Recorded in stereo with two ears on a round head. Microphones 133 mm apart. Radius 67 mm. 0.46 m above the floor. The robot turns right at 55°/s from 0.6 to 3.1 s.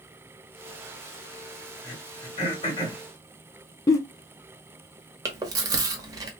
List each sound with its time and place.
1.8 s throat clearing: 30° left (ahead or behind), 1.6 m
3.9 s a giggle: 20° left (ahead or behind), 0.6 m
5.2 s chewing: 25° right (ahead or behind), 0.8 m